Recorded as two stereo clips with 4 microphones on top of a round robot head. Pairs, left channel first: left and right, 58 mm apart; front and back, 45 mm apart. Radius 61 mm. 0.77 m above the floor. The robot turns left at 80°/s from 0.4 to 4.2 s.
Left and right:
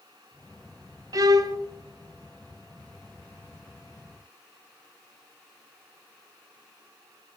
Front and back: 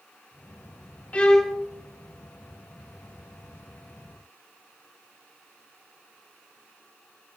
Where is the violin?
65° right, 1.0 m; by 1.6 s 105° right, 1.0 m.